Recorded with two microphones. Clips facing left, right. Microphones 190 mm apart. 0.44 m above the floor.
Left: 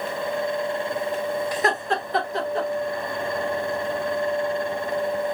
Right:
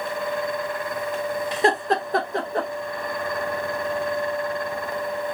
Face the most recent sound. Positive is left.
turn(degrees=-55)  # may be behind; listen again after turning